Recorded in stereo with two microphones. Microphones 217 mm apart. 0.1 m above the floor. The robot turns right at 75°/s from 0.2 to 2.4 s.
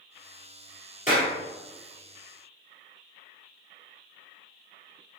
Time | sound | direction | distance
1.1 | a clap | 35° left (ahead or behind) | 1.9 m